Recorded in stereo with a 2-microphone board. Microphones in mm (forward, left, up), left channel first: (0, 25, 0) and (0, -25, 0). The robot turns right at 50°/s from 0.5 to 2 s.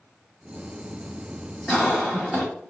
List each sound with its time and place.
1.7 s a cough: 5° left (ahead or behind), 1.4 m; by 2.5 s 5° right (ahead or behind), 1.4 m